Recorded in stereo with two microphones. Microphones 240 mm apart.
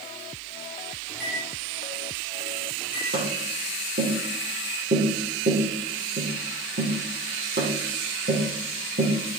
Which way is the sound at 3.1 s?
50° right (ahead or behind).